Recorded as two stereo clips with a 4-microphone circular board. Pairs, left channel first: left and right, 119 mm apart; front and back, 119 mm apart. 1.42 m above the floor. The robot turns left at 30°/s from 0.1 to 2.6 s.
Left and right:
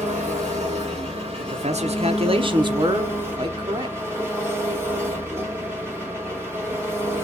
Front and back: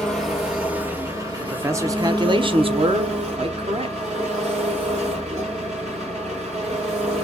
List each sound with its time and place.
0.0 s an engine running: 85° right, 2.5 m; by 7.2 s 160° right, 2.5 m
1.4 s a man speaking: 105° right, 0.9 m; by 4.0 s 140° right, 0.9 m